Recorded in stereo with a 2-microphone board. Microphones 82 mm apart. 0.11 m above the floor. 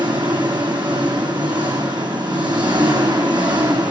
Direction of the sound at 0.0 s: 70° right (ahead or behind).